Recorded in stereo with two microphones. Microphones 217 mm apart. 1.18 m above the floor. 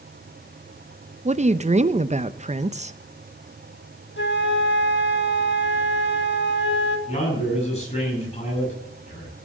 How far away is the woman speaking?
About 0.7 m.